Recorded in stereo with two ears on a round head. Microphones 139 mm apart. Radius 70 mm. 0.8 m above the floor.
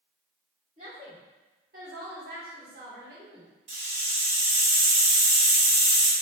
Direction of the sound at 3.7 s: 35° right (ahead or behind).